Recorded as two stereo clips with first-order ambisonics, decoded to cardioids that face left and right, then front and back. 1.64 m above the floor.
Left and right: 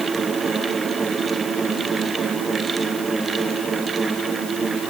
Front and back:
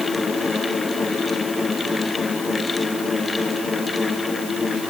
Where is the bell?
I don't hear a bell.